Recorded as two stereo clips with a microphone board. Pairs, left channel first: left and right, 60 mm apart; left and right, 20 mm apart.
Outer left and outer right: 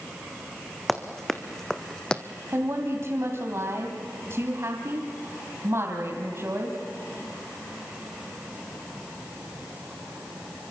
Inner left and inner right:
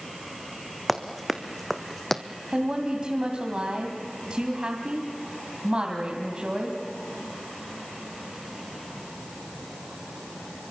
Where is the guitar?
No guitar in this recording.